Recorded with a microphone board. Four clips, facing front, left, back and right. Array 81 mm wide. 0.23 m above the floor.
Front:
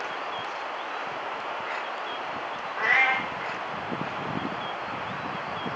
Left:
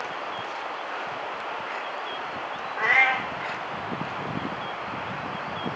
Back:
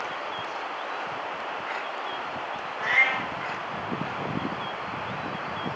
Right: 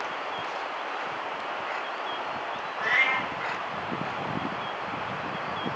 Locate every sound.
2.8 s a cat meowing: 65° left, 1.3 m